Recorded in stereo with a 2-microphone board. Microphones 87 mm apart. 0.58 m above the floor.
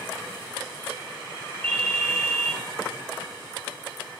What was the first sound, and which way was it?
A ringtone, 15° left (ahead or behind).